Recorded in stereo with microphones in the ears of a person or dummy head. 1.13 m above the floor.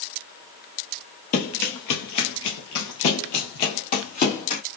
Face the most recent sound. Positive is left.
turn(degrees=35)  # may be behind; listen again after turning